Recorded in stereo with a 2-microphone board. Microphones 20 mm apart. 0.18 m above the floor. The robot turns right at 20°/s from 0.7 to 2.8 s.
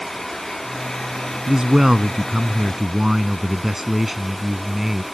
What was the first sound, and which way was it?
A man speaking, 30° right (ahead or behind).